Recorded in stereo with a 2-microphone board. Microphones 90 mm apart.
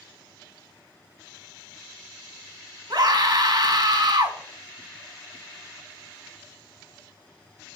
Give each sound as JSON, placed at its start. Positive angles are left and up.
{"t": 2.9, "sound": "a scream", "side_deg": -55, "distance_m": 1.4}